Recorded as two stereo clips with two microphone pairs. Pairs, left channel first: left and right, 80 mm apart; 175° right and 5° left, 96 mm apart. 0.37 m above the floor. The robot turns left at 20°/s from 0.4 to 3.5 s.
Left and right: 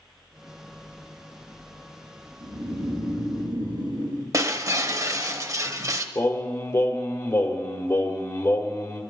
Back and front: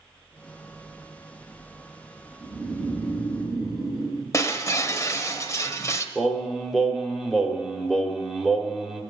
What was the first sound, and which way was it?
Snoring, 60° right.